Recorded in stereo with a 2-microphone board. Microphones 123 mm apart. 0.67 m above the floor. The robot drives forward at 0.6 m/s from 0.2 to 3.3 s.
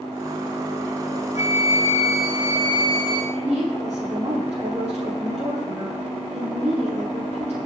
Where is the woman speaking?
55° right (ahead or behind), 10 m.